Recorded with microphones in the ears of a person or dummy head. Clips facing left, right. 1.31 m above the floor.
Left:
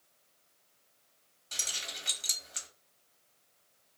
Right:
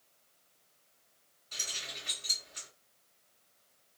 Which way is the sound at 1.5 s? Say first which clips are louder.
Left 1 dB; 55° left (ahead or behind).